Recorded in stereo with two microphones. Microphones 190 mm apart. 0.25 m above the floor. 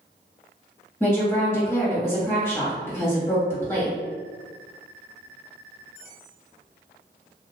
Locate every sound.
1.0 s a woman speaking: 15° left (ahead or behind), 1.5 m